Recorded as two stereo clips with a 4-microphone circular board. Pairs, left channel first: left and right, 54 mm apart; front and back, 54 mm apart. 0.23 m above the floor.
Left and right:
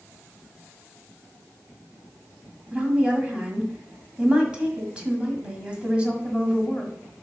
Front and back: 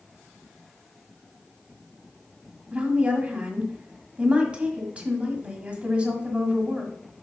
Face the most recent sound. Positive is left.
turn(degrees=-140)